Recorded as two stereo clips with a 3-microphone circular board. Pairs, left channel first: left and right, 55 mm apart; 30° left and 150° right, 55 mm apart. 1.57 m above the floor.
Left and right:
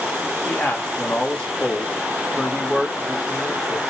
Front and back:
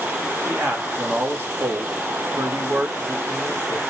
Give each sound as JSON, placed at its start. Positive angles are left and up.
{"t": 0.5, "sound": "a man speaking", "azimuth_deg": 140, "distance_m": 1.7}